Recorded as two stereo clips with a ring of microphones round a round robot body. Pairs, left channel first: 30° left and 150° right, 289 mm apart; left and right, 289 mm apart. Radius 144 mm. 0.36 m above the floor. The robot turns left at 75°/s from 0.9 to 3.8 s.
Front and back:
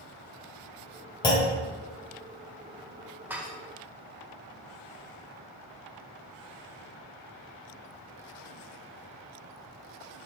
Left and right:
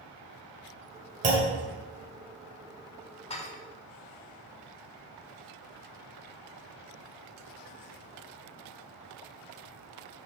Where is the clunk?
35° right, 1.7 m; by 1.6 s 60° right, 1.7 m.